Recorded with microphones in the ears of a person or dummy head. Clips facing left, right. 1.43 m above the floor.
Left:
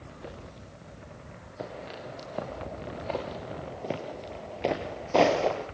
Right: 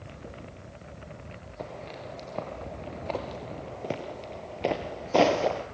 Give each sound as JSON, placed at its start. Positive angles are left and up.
{"t": 1.6, "sound": "footsteps", "side_deg": 5, "distance_m": 5.5}